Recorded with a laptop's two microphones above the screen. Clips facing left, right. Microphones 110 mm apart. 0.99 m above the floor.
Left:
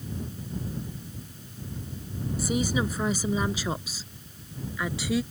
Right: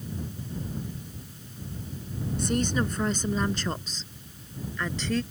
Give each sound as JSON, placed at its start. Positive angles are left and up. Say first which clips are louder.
{"t": 2.4, "sound": "a woman speaking", "louder": "even", "side_deg": 5}